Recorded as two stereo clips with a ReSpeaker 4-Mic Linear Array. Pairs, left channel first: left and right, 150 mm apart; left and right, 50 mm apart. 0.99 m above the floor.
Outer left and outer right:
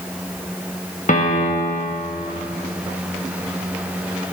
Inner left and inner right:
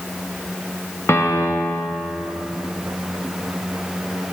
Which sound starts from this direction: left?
A piano, at 1.1 s.